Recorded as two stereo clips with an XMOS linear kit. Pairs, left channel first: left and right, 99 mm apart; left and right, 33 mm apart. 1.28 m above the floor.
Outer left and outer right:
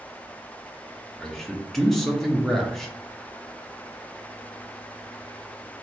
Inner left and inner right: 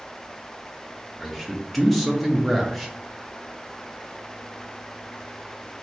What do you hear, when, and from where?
1.2 s a man speaking: centre (ahead or behind), 0.6 m